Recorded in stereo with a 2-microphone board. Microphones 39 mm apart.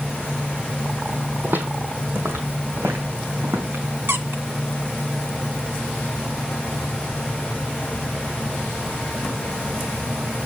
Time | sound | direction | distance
1.4 | footsteps | 55° right (ahead or behind) | 1.4 m
4.1 | a squeak | 70° right (ahead or behind) | 0.8 m